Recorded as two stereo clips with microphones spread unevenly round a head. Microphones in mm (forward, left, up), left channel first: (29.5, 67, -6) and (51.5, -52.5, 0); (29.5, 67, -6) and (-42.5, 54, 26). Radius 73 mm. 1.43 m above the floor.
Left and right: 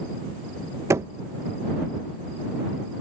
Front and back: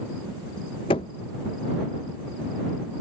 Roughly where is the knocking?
Ahead right.